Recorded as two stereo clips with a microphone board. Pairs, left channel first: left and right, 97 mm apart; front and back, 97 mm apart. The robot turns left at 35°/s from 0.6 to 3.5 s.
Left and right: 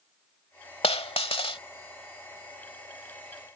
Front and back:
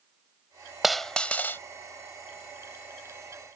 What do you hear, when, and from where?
0.8 s a dropped coin: 90° left; by 1.6 s 65° left